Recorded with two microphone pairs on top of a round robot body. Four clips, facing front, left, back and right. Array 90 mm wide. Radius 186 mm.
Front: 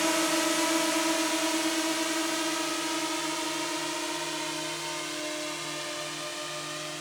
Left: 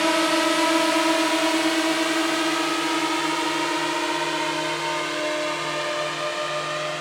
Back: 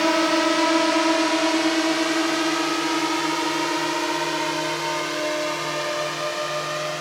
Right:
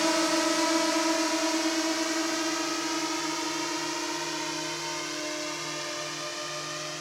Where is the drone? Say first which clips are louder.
Left 5 dB, back 8 dB; 145° left; by 7.0 s 140° left.